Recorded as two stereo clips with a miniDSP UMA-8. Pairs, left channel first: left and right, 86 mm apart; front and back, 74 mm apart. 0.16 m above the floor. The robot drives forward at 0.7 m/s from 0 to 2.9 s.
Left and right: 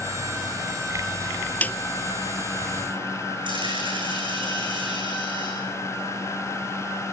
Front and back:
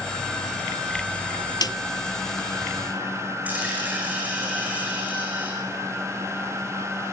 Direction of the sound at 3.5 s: 110° right.